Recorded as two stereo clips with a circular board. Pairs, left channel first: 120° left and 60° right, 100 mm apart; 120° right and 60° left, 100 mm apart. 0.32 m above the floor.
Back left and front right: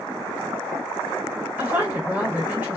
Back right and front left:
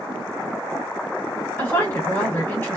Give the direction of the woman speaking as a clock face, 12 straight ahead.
3 o'clock.